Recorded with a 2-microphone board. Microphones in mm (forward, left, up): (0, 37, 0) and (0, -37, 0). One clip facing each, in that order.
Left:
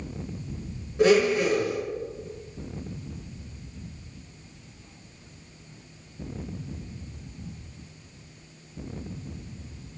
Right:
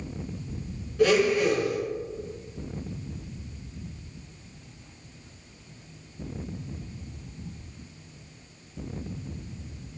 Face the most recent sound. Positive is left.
turn(degrees=25)  # may be behind; listen again after turning